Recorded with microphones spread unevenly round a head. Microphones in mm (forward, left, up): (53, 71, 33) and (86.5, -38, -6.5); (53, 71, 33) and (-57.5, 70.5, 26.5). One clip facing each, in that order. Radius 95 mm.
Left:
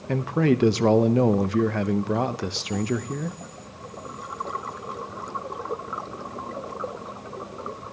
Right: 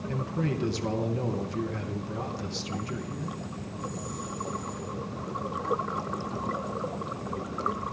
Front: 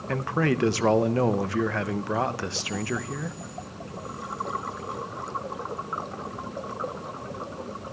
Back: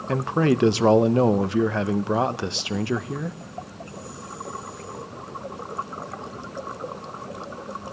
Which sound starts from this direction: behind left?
A man speaking, at 0.1 s.